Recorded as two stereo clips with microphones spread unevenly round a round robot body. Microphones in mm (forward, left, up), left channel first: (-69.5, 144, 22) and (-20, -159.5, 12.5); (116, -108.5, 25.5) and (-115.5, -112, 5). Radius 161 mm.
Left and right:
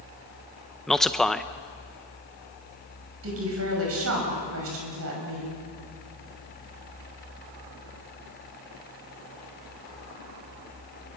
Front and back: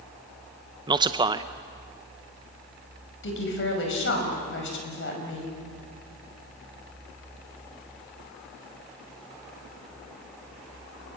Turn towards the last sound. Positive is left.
turn(degrees=-30)